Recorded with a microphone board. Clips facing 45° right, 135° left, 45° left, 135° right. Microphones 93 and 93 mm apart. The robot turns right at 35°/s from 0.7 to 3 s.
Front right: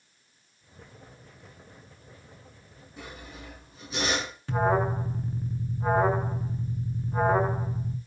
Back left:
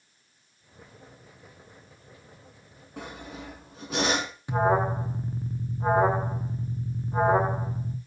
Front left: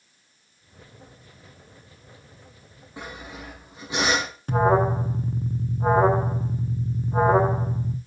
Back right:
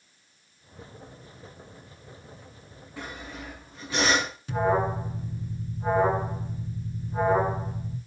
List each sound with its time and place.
3.0 s sawing: 115° left, 6 m
4.5 s an alarm: 65° left, 1.7 m